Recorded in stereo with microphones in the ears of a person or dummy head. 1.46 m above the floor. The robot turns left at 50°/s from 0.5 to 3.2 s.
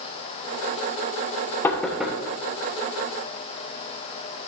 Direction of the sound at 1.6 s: 15° left (ahead or behind).